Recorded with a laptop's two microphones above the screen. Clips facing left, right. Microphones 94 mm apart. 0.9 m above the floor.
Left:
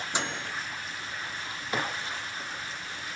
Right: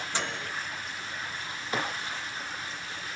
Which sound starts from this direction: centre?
A microwave, at 0.1 s.